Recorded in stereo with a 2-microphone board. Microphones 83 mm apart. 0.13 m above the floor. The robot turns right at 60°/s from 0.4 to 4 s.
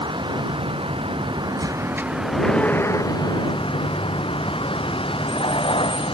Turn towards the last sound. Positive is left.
turn(degrees=100)